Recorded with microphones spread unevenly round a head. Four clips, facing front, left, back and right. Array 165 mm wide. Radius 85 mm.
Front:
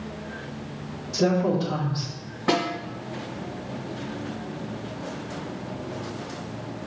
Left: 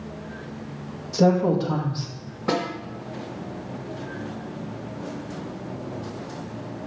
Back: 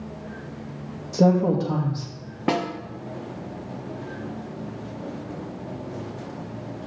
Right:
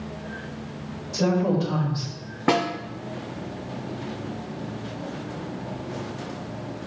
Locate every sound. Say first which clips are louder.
1.1 s a woman speaking: left 3 dB, back 3 dB; 165° left, 1.7 m
2.5 s a snare drum: right 3 dB, even; 140° right, 1.3 m